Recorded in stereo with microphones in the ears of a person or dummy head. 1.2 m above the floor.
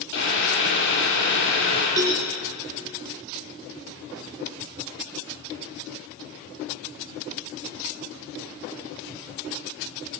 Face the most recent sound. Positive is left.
turn(degrees=-20)  # may be behind; listen again after turning